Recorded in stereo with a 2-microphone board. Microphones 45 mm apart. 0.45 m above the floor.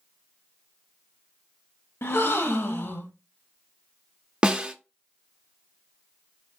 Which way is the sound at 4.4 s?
20° right (ahead or behind).